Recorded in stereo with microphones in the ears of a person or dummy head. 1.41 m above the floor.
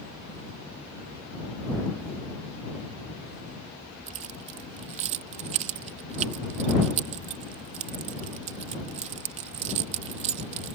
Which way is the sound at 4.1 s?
35° right (ahead or behind).